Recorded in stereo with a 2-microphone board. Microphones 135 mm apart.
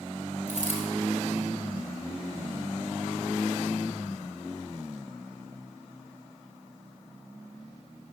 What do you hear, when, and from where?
0.5 s a dropped coin: 70° right (ahead or behind), 2.0 m